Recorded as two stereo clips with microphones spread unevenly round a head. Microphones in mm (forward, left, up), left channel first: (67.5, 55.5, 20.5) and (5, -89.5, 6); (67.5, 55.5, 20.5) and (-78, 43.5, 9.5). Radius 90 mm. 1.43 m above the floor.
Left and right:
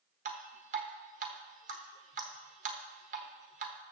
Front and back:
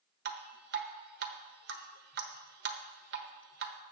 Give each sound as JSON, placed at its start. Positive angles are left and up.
{"t": 0.2, "sound": "dripping", "azimuth_deg": -165, "distance_m": 1.1}